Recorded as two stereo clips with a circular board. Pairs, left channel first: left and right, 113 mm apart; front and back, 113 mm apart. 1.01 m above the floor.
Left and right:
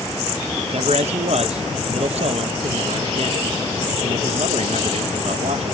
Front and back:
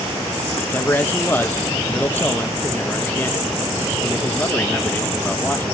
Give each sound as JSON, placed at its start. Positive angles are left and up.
{"t": 0.6, "sound": "a man speaking", "azimuth_deg": -70, "distance_m": 0.6}